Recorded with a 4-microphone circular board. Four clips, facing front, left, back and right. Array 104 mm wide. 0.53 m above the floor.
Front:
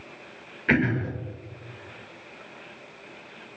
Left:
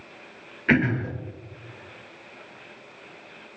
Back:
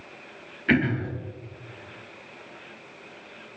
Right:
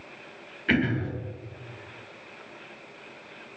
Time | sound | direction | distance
0.7 | throat clearing | 75° left | 0.9 m